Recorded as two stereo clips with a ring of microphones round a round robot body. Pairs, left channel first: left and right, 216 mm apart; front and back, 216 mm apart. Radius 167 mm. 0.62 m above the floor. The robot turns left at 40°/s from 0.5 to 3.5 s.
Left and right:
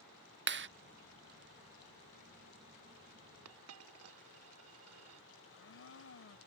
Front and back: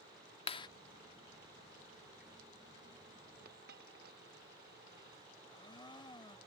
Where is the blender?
70° left.